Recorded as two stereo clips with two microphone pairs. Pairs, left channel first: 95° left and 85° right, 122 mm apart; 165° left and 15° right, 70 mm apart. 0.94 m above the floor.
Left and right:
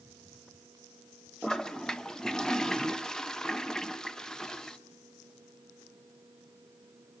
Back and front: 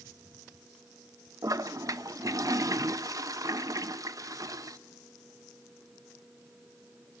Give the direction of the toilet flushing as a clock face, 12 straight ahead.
12 o'clock.